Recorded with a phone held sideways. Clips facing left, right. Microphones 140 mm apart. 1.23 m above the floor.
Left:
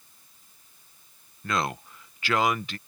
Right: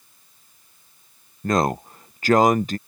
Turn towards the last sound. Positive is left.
turn(degrees=-40)  # may be behind; listen again after turning